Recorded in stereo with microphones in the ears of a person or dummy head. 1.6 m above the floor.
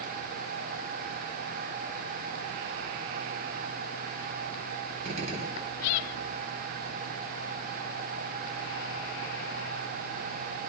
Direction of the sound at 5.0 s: 40° right (ahead or behind).